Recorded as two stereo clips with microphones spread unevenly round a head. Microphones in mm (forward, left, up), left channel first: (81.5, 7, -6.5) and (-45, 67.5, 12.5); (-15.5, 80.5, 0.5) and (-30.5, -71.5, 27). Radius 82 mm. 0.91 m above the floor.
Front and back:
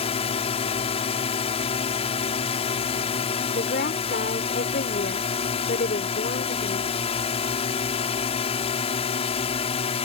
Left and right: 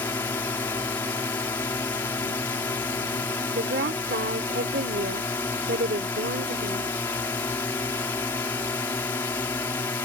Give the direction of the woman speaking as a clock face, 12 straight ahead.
2 o'clock.